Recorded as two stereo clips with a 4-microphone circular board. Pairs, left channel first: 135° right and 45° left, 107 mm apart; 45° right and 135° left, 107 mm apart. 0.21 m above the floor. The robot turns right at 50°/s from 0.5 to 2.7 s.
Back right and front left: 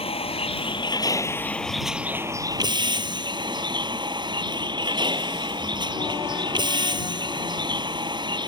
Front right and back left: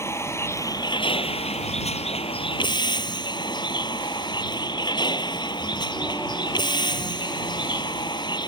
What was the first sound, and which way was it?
A vehicle, 110° right.